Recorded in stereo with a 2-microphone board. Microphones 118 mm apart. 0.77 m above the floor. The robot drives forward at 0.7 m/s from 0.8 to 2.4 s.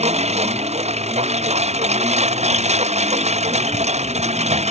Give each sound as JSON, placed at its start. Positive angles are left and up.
{"t": 0.0, "sound": "a lawn mower", "side_deg": -70}